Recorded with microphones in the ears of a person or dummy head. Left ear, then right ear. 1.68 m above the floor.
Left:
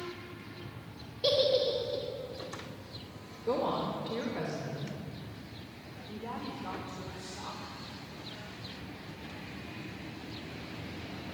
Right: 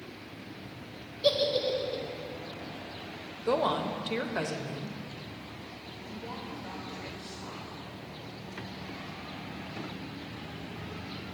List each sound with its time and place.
1.2 s a giggle: 5° left (ahead or behind), 0.7 m
3.5 s a woman speaking: 45° right (ahead or behind), 0.7 m
6.1 s a woman speaking: 50° left (ahead or behind), 1.2 m